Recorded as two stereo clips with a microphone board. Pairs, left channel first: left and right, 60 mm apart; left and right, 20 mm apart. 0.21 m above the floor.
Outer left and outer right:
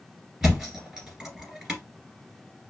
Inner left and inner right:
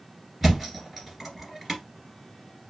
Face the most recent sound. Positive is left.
turn(degrees=-5)  # may be behind; listen again after turning